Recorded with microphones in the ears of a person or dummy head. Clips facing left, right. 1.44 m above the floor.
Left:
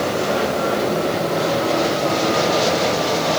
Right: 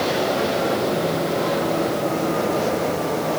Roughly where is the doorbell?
No doorbell in this recording.